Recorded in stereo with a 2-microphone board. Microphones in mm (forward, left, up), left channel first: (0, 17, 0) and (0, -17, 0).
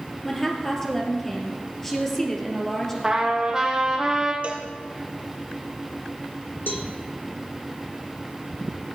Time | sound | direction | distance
0.2 | a woman speaking | 15° left (ahead or behind) | 2.5 m
3.0 | a trumpet | 15° right (ahead or behind) | 1.7 m
4.4 | a cowbell | 35° right (ahead or behind) | 1.6 m
6.7 | a cowbell | 75° left (ahead or behind) | 1.2 m